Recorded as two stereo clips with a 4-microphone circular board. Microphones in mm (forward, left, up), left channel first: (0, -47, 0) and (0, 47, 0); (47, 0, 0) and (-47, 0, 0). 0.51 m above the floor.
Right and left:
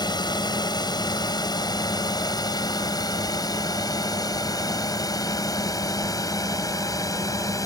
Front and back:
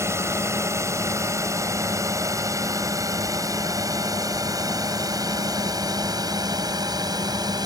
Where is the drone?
125° right; by 7.7 s 140° right.